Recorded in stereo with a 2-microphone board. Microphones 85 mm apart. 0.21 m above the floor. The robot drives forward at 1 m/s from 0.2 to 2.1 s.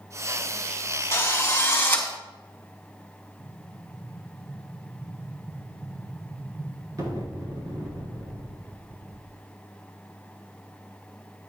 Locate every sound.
1.1 s a drill: 35° left (ahead or behind), 1.2 m; by 2.1 s 25° left (ahead or behind), 1.7 m
3.4 s an explosion: 50° right (ahead or behind), 3.5 m